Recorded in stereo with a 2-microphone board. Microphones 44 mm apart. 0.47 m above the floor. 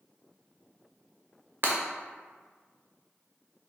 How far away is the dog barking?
No dog barking in this recording.